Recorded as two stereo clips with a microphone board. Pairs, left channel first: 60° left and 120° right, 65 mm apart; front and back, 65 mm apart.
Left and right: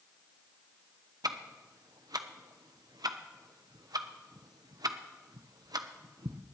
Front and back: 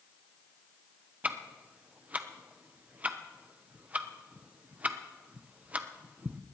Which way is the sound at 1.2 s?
115° right.